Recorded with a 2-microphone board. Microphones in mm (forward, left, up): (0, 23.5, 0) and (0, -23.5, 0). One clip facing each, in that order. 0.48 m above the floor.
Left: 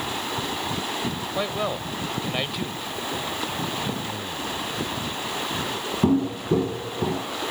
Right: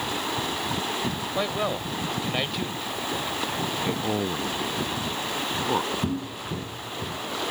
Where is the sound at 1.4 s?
Centre (ahead or behind).